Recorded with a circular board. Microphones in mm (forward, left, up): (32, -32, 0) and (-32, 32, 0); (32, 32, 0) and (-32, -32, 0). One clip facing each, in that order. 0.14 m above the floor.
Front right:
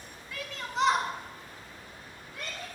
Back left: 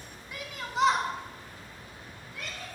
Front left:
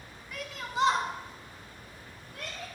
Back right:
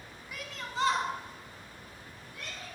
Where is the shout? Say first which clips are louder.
Even, front left 3 dB; 155° left, 1.2 m; by 2.7 s 20° left, 2.5 m.